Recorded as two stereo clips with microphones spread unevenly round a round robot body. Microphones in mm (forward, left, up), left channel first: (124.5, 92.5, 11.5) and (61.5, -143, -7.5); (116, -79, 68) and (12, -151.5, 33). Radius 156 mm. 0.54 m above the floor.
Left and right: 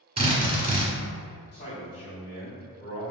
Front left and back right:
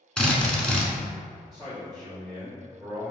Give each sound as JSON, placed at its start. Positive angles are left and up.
{"t": 0.2, "sound": "a drill", "azimuth_deg": -65, "distance_m": 1.3}
{"t": 1.5, "sound": "a man speaking", "azimuth_deg": 145, "distance_m": 1.4}